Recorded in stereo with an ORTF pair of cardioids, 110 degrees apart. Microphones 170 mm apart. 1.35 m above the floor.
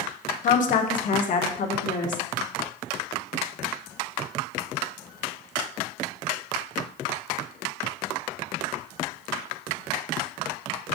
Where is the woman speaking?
50° left, 0.9 m.